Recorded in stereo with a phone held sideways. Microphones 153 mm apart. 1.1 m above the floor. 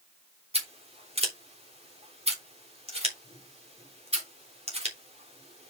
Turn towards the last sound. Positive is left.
turn(degrees=-45)  # may be behind; listen again after turning